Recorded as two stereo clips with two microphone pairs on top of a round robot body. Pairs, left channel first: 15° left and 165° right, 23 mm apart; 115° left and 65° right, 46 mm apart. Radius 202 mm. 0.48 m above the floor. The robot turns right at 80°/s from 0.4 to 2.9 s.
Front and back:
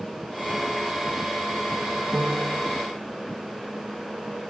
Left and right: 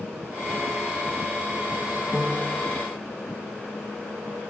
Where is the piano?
150° right; by 2.6 s 110° right.